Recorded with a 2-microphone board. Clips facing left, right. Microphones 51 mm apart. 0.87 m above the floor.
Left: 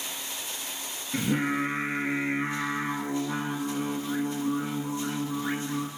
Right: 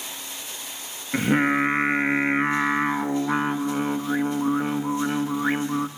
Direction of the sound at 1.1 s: 55° right (ahead or behind).